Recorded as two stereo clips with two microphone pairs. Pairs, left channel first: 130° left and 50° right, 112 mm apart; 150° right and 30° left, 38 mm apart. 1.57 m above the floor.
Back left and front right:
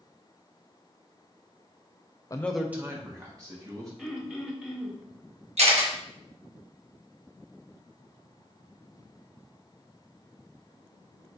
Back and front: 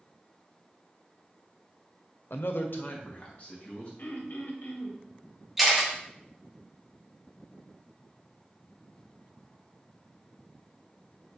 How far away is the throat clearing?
About 1.0 m.